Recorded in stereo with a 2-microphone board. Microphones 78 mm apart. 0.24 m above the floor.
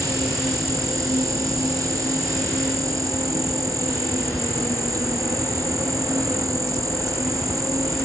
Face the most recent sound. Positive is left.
turn(degrees=-45)  # may be behind; listen again after turning